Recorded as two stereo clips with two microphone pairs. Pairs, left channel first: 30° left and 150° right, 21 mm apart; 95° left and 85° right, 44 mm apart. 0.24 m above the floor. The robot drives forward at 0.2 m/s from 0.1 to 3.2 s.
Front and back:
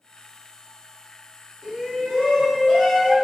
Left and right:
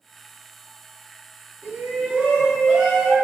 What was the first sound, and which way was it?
A shout, 85° right.